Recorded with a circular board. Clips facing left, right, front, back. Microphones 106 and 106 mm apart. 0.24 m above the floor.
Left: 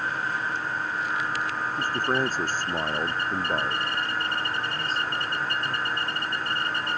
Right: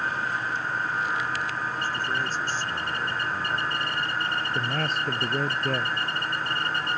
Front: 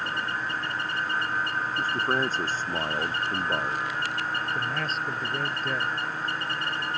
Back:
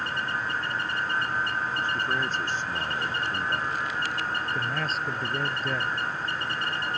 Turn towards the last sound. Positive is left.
turn(degrees=-90)